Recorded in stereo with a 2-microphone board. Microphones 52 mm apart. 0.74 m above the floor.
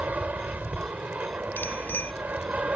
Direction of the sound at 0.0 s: 30° right (ahead or behind).